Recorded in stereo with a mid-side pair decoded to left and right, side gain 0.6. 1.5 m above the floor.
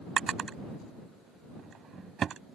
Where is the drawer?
40° right.